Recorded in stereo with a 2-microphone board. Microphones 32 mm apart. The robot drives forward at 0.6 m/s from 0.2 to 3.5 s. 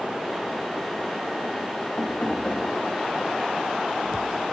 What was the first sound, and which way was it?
Knocking, 55° left (ahead or behind).